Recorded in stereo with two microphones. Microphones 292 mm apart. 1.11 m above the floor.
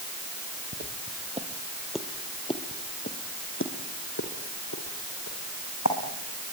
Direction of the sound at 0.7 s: 35° right (ahead or behind).